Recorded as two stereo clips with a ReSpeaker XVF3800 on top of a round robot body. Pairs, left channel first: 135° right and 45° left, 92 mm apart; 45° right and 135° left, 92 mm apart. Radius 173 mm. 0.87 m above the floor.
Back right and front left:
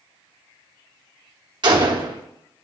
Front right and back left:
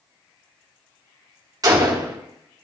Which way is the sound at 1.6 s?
85° left.